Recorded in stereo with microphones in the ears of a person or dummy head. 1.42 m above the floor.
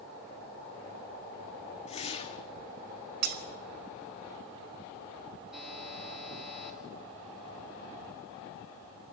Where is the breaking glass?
60° right (ahead or behind), 1.4 m.